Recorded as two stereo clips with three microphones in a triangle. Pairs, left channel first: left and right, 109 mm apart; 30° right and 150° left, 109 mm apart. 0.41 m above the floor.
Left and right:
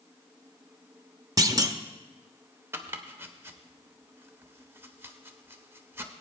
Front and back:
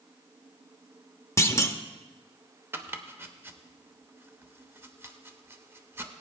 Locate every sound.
1.4 s a clunk: 70° right, 0.6 m
2.7 s chopping: 150° right, 0.8 m